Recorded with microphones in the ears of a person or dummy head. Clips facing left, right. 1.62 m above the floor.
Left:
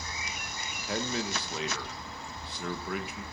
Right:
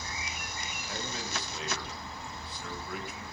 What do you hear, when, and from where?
0.9 s a man speaking: 55° left (ahead or behind), 1.9 m